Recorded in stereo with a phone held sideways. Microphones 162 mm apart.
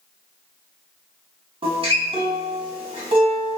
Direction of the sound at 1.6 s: 35° right (ahead or behind).